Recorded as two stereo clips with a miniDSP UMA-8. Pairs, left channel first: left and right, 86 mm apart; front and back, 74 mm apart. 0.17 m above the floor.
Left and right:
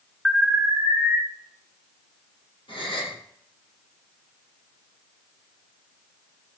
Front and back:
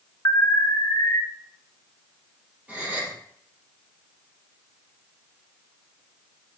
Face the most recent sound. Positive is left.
turn(degrees=105)